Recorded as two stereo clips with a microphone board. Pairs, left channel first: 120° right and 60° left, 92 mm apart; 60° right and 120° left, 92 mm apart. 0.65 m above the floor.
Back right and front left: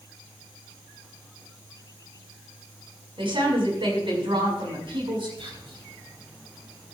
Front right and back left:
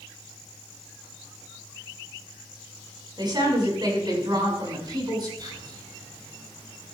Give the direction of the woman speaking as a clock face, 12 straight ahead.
9 o'clock.